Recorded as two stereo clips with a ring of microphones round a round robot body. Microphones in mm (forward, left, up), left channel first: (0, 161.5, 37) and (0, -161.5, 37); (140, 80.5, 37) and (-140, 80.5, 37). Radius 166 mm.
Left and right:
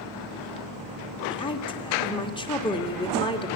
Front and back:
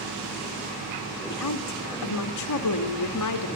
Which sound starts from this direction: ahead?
A woman speaking, at 1.3 s.